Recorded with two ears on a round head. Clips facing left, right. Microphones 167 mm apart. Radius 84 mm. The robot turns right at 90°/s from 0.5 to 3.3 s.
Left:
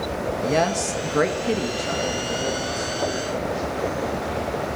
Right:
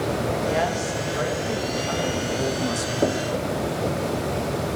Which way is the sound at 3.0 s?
35° right (ahead or behind).